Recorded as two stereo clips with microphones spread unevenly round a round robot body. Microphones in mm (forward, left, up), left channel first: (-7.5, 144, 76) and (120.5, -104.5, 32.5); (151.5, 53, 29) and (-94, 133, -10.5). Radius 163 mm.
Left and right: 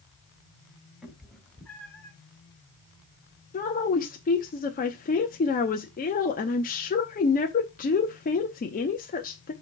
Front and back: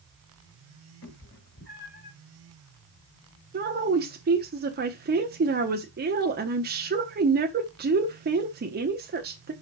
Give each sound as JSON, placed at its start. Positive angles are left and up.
{"t": 1.0, "sound": "a cat meowing", "azimuth_deg": 25, "distance_m": 1.6}
{"t": 3.5, "sound": "a woman speaking", "azimuth_deg": 175, "distance_m": 0.8}